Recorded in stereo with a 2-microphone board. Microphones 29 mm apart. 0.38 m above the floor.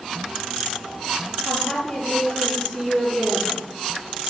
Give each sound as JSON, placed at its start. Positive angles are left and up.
{"t": 1.4, "sound": "a woman speaking", "side_deg": 35, "distance_m": 7.5}